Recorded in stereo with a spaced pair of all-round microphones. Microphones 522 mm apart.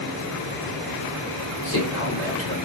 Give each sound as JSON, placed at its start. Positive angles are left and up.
{"t": 1.6, "sound": "a man speaking", "side_deg": 25, "distance_m": 4.5}